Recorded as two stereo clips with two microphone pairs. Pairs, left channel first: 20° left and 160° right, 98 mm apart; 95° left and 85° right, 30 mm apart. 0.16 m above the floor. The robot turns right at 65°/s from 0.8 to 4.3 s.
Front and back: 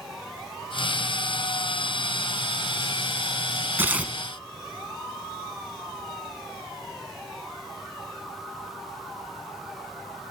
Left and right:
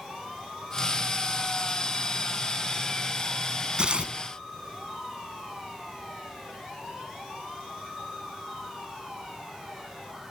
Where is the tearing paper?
110° right, 1.2 m; by 4.2 s 85° right, 1.2 m.